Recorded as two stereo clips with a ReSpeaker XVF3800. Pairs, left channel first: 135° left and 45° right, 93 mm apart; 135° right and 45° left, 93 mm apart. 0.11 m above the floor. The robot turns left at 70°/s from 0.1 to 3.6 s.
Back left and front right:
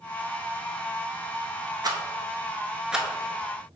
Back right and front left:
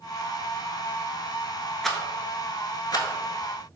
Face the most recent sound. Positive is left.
turn(degrees=-170)